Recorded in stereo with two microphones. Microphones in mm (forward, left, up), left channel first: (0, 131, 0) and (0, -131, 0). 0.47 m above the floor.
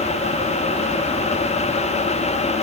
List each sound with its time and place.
Only background noise.